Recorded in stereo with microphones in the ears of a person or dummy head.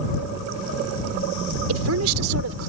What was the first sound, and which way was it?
A woman speaking, 80° right.